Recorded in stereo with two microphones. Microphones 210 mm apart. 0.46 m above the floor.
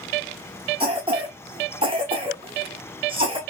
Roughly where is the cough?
Right.